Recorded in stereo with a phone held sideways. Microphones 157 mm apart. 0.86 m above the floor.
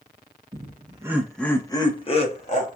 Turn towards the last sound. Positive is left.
turn(degrees=50)  # may be behind; listen again after turning